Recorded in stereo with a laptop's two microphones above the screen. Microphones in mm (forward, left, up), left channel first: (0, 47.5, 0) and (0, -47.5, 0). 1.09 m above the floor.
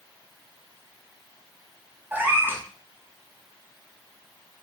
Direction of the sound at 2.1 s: 20° right (ahead or behind).